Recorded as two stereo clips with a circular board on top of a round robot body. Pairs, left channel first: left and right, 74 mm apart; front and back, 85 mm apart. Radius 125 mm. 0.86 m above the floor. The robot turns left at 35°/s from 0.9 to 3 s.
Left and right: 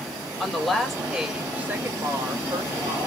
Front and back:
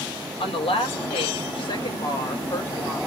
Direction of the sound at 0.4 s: Straight ahead.